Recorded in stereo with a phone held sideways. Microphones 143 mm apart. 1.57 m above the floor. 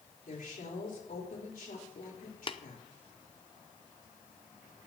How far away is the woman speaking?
About 3.5 m.